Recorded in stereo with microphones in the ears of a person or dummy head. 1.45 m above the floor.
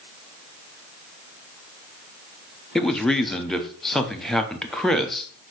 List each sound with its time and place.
2.8 s a man speaking: centre (ahead or behind), 0.6 m